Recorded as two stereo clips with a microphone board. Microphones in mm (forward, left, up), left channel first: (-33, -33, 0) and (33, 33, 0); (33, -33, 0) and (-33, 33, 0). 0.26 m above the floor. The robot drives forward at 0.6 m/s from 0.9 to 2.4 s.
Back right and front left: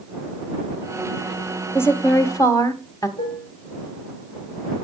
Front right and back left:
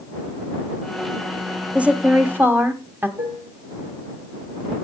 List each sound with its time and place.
1.8 s a woman speaking: 160° right, 1.2 m; by 3.1 s 170° right, 1.4 m
3.2 s dishes clattering: 165° right, 3.5 m